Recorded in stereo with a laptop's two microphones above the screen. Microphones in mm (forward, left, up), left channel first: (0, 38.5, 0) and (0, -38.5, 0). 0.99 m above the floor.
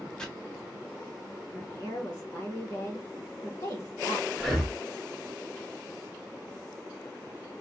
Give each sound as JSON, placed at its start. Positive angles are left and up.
{"t": 0.2, "sound": "chopping", "side_deg": 10, "distance_m": 0.8}
{"t": 1.5, "sound": "a woman speaking", "side_deg": 50, "distance_m": 1.2}
{"t": 4.4, "sound": "breathing", "side_deg": 5, "distance_m": 0.5}